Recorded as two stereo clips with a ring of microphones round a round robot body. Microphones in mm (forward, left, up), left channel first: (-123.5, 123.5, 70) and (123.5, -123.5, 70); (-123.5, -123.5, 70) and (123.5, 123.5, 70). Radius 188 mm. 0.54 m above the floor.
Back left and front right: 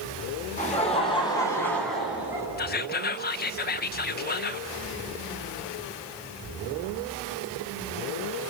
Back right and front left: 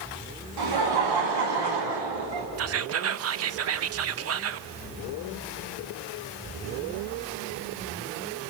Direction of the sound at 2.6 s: 80° left.